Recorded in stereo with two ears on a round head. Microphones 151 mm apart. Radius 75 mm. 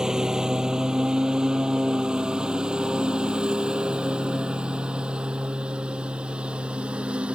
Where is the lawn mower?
5° right (ahead or behind).